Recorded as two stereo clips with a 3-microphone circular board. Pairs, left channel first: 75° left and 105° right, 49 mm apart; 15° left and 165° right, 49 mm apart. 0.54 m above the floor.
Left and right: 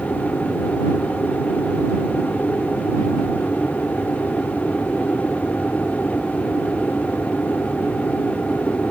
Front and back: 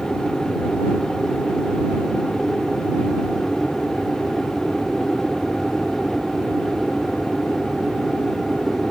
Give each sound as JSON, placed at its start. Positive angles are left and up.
{"t": 0.0, "sound": "an aircraft", "azimuth_deg": 85}